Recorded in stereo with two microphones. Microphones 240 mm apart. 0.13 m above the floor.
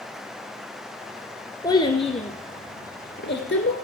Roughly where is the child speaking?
Centre.